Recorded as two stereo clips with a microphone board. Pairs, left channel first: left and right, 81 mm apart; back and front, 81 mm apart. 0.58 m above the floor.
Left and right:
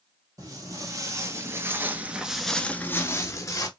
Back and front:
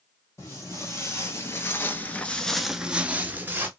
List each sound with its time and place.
0.4 s footsteps: 130° right, 1.3 m; by 3.7 s 55° left, 0.8 m